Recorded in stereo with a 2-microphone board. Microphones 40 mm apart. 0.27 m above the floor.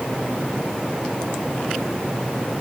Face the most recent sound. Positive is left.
No sound to turn to.